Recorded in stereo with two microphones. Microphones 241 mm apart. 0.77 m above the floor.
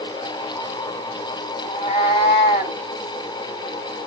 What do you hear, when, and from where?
1.6 s a cat meowing: 20° left (ahead or behind), 2.5 m